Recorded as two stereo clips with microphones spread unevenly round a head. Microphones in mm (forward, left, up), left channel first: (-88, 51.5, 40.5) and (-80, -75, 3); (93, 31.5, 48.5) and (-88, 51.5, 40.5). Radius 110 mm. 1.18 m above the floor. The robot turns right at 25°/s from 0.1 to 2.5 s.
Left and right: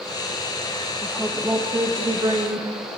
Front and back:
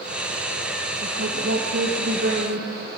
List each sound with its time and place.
1.0 s a woman speaking: 170° right, 1.4 m; by 3.0 s 135° right, 1.4 m